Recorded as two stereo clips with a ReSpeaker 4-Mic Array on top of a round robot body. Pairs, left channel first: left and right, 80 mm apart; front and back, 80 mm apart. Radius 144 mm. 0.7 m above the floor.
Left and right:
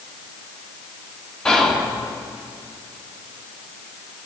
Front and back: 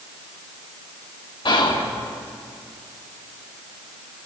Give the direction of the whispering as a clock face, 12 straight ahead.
12 o'clock.